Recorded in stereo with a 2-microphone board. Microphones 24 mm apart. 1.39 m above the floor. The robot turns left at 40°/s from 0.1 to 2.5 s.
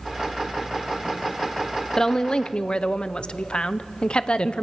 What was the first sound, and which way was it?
A woman speaking, 20° left (ahead or behind).